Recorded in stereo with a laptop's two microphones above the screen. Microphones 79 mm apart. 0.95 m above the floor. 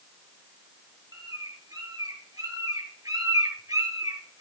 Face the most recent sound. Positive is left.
turn(degrees=-45)  # may be behind; listen again after turning